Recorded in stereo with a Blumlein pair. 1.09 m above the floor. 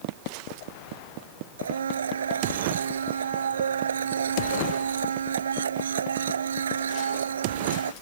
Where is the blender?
70° right.